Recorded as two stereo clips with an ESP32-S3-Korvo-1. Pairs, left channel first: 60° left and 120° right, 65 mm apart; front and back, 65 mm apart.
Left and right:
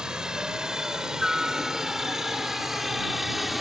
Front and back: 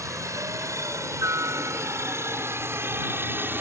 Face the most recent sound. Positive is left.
turn(degrees=150)